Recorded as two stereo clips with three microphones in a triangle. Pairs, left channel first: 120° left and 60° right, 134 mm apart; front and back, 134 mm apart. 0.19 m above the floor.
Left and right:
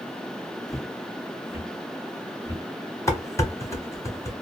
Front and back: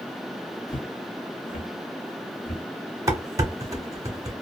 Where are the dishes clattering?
160° left, 1.0 m.